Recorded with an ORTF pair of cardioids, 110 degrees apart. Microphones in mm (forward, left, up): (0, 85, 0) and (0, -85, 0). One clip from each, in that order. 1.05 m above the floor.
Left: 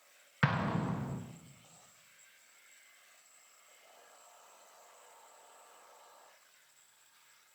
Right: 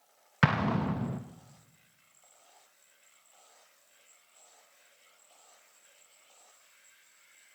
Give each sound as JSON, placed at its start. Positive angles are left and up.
{"t": 0.4, "sound": "an explosion", "azimuth_deg": -25, "distance_m": 0.6}